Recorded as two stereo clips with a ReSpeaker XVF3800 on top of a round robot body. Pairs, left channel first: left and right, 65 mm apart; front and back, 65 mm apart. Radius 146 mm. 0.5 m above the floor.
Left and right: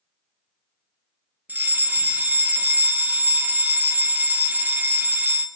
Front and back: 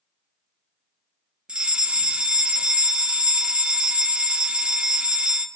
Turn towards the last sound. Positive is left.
turn(degrees=-120)